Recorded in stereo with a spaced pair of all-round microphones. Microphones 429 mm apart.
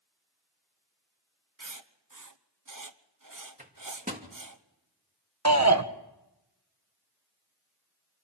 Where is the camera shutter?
I don't hear a camera shutter.